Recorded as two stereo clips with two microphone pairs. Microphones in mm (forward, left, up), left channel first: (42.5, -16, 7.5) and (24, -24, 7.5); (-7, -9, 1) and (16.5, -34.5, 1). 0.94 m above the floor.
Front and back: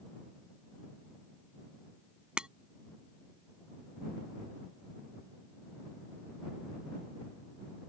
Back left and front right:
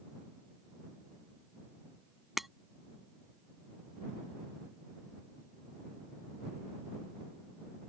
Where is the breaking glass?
130° right.